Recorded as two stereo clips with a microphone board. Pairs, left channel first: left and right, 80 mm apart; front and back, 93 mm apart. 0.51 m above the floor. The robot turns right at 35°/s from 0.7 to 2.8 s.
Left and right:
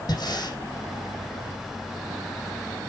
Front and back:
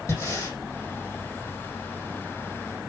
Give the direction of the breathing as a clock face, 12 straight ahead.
10 o'clock.